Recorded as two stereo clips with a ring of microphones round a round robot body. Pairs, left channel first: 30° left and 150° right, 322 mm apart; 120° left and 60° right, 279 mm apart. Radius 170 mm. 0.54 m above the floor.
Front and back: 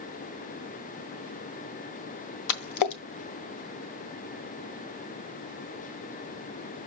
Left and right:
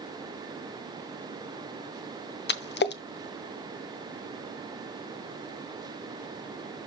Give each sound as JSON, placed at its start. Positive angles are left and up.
{"t": 2.5, "sound": "a splash", "azimuth_deg": 65, "distance_m": 0.8}